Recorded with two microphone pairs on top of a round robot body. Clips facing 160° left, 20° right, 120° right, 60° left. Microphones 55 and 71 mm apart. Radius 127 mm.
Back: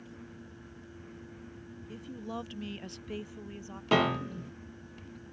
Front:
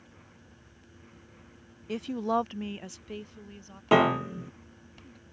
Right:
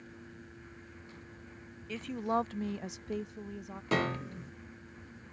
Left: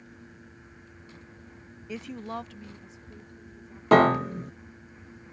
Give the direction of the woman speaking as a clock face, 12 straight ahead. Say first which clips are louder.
Front 12 dB, right 3 dB; 12 o'clock.